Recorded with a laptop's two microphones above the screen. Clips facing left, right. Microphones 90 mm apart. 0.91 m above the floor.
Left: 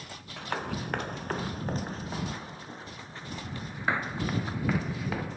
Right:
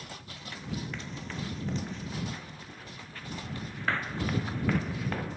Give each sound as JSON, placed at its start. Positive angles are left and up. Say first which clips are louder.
{"t": 0.4, "sound": "running footsteps", "louder": "left 6 dB", "side_deg": 65}